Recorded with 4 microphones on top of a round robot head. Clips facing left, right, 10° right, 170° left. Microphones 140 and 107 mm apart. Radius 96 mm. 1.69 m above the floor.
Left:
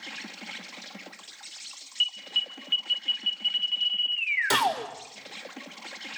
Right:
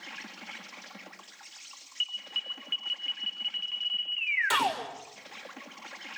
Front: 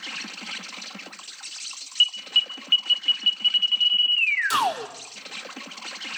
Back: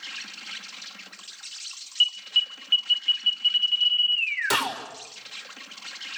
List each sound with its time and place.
0.0 s an insect: 25° left, 1.7 m
2.0 s an alarm: 25° left, 1.7 m
4.5 s a gunshot: 140° left, 6 m